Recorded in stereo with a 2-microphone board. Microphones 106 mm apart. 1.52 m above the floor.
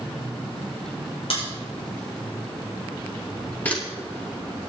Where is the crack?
70° left (ahead or behind), 6.5 m.